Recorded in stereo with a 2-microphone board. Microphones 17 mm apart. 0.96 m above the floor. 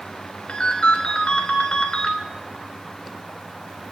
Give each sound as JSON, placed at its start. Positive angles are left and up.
{"t": 0.5, "sound": "a ringtone", "side_deg": 80, "distance_m": 3.0}